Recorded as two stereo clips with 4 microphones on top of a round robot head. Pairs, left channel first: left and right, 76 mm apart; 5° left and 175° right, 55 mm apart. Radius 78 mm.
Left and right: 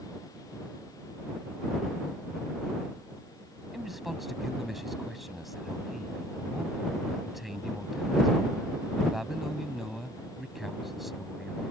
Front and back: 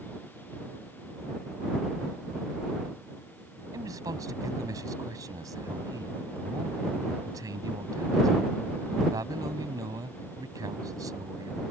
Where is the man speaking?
Straight behind.